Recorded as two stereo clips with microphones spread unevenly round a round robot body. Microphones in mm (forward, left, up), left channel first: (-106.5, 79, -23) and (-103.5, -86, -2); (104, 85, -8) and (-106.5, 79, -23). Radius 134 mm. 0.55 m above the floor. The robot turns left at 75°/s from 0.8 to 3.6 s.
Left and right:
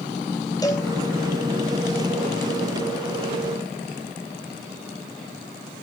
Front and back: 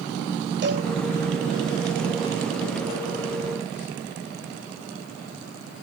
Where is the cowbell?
155° left, 3 m; by 0.9 s 150° left, 3 m.